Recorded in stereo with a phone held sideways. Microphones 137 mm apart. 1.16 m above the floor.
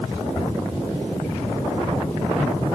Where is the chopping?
No chopping in this recording.